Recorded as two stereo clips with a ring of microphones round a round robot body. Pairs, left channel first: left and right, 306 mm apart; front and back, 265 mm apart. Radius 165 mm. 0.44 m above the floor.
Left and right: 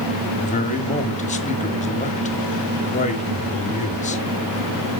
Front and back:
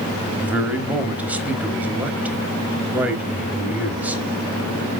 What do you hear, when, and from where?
0.4 s a man speaking: 105° left, 1.4 m